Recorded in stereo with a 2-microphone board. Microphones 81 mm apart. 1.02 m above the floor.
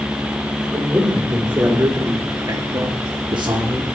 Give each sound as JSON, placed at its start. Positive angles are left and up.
{"t": 0.7, "sound": "a man speaking", "side_deg": -20, "distance_m": 4.0}